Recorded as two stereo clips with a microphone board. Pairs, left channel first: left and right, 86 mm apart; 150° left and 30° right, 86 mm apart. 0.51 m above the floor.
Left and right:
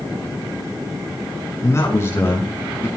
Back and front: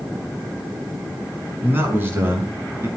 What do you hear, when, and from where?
1.6 s a man speaking: 35° left, 5 m; by 2.9 s 30° left, 6 m